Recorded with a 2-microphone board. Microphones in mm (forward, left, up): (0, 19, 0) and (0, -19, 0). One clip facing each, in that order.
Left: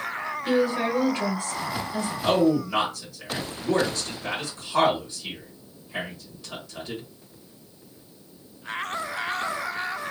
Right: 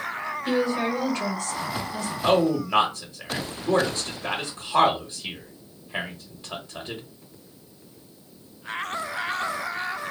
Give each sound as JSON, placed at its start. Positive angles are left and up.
{"t": 0.5, "sound": "a woman speaking", "side_deg": 15, "distance_m": 1.4}
{"t": 2.2, "sound": "a man speaking", "side_deg": -30, "distance_m": 1.1}